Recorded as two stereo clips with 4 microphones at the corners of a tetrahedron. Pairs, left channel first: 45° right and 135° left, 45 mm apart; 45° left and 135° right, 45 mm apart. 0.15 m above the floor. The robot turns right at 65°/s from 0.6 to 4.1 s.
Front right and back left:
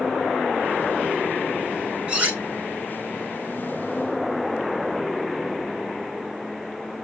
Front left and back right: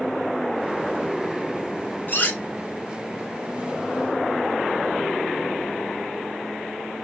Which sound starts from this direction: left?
Cutlery clinking, at 2.1 s.